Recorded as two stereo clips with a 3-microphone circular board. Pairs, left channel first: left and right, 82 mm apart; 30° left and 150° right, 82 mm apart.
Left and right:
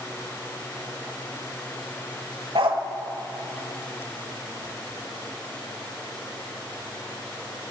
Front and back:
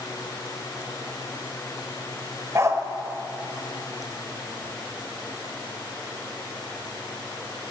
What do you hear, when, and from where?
2.5 s a dog barking: 95° right, 1.1 m